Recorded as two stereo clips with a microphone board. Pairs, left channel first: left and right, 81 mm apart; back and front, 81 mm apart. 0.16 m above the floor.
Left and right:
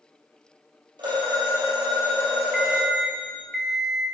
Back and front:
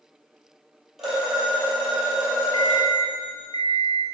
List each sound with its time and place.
1.0 s a phone ringing: 85° right, 2.5 m
2.5 s an alarm clock: 175° left, 1.0 m